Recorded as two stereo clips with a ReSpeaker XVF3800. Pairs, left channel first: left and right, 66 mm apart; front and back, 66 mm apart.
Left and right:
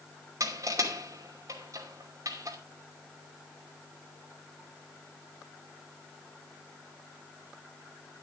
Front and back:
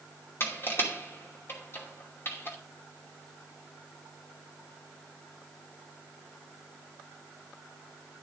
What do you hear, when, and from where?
0.4 s crushing: 55° right, 2.5 m